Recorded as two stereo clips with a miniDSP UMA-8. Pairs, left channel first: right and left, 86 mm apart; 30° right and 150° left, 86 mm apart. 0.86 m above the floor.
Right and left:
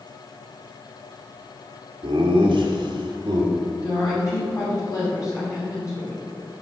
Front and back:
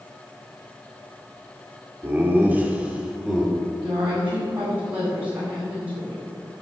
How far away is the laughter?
About 2 m.